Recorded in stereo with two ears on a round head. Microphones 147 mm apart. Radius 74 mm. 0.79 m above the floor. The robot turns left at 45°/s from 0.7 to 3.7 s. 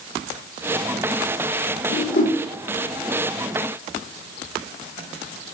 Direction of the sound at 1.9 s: 65° left (ahead or behind).